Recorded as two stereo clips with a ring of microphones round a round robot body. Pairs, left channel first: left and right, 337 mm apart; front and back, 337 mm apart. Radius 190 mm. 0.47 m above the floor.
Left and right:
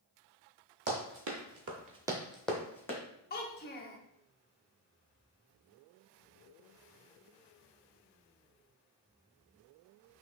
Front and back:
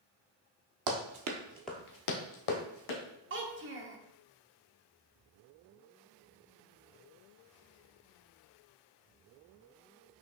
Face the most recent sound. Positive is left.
turn(degrees=140)